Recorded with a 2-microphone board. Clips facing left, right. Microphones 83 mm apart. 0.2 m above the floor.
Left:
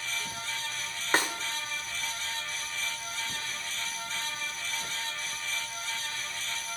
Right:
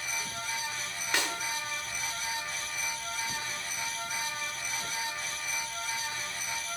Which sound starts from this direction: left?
A snare drum, at 1.1 s.